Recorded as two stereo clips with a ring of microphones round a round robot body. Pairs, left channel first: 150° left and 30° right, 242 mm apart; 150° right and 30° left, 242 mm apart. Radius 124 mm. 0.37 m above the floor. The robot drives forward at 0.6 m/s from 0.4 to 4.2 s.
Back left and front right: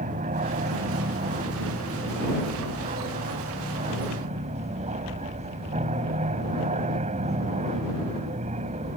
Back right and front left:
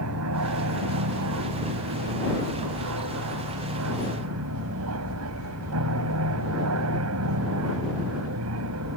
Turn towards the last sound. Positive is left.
turn(degrees=30)